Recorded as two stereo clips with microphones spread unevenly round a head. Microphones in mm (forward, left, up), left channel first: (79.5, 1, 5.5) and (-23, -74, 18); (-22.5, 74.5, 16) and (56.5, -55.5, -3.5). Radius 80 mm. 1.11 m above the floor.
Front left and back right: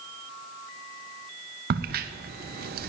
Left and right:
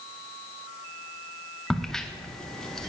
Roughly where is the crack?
Behind right.